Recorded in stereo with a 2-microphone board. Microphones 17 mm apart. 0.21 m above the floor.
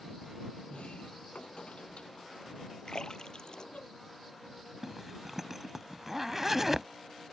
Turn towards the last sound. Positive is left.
turn(degrees=-10)  # may be behind; listen again after turning